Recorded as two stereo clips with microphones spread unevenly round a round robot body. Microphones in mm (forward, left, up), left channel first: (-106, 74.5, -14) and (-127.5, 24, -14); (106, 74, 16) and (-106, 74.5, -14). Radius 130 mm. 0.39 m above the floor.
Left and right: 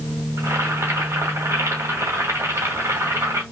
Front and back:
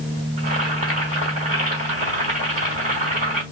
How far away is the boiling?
About 2 m.